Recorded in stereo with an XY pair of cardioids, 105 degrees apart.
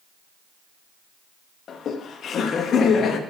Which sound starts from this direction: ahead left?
Laughter, at 1.7 s.